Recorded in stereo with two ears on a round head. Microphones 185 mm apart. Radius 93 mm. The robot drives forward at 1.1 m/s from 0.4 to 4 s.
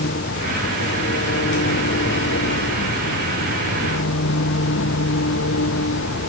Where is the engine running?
50° left (ahead or behind); by 6.3 s 60° left (ahead or behind).